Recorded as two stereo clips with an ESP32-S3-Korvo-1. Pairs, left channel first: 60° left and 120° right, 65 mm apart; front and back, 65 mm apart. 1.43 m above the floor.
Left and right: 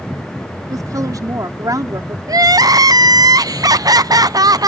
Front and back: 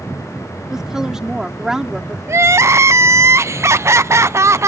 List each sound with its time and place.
0.7 s a woman speaking: 95° right
2.3 s crying: 135° right